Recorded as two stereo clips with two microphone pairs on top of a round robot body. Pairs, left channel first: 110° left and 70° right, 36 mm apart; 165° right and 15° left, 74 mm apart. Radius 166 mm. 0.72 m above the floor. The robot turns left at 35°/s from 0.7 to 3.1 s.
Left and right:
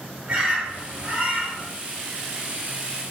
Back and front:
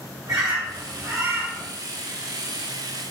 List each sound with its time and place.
0.3 s a bird: 20° right, 1.3 m; by 1.7 s 55° right, 1.3 m